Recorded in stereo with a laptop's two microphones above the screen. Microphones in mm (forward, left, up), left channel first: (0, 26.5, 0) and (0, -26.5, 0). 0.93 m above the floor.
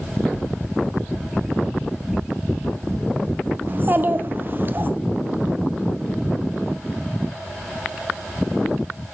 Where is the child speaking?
40° right (ahead or behind), 0.8 m.